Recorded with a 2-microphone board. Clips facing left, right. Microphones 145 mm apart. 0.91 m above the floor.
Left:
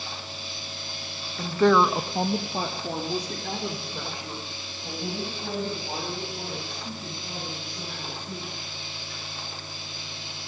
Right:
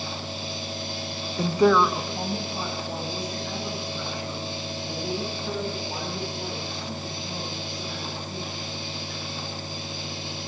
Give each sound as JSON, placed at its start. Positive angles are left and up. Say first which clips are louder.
{"t": 1.4, "sound": "a woman speaking", "louder": "right 1 dB", "side_deg": -35, "distance_m": 0.8}